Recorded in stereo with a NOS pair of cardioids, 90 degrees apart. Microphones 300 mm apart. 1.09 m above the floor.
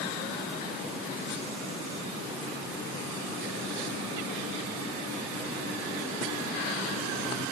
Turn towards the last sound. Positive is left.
No sound to turn to.